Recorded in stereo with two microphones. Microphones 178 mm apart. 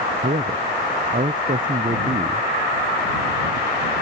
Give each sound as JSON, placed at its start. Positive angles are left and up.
{"t": 0.2, "sound": "a man speaking", "side_deg": -45}